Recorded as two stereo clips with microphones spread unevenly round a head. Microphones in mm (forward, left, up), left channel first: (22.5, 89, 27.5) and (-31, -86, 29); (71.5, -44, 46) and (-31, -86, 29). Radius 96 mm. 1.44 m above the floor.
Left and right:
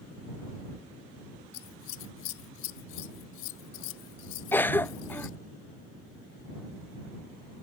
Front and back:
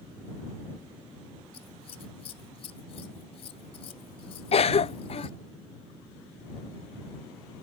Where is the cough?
5° right.